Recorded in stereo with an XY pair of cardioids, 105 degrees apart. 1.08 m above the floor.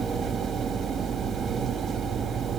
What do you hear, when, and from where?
0.0 s a machine running: 55° right, 2.5 m